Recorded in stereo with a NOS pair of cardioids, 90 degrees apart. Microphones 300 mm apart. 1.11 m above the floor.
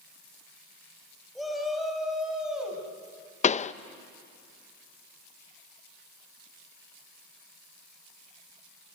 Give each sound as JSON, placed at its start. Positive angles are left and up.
{"t": 1.4, "sound": "a shout", "azimuth_deg": 0, "distance_m": 7.0}
{"t": 3.4, "sound": "a pop", "azimuth_deg": 25, "distance_m": 0.6}